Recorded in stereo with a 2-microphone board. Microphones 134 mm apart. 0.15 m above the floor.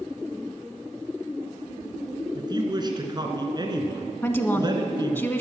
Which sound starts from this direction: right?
A woman speaking, at 2.4 s.